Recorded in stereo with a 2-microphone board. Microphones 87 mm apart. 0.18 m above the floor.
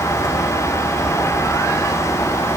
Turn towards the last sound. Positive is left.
No sound to turn to.